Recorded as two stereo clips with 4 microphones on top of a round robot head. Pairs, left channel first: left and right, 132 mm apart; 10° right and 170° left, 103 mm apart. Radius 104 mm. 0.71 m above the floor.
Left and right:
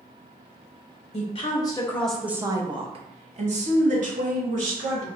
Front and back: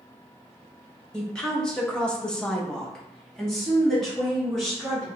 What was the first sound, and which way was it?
A woman speaking, 70° left.